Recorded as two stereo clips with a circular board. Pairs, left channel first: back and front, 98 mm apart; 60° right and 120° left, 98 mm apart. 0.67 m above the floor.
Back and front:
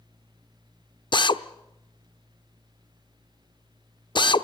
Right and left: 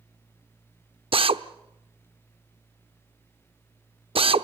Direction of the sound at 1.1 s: 145° left.